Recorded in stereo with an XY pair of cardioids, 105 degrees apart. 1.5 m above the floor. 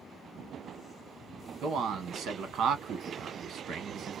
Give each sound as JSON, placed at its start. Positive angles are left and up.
{"t": 1.6, "sound": "a man speaking", "azimuth_deg": -65, "distance_m": 1.2}